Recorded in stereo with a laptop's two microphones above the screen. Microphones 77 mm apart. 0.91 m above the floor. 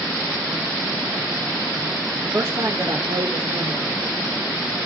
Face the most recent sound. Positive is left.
turn(degrees=-70)  # may be behind; listen again after turning